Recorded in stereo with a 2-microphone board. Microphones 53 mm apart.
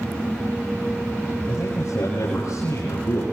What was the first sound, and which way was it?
A man speaking, 80° left.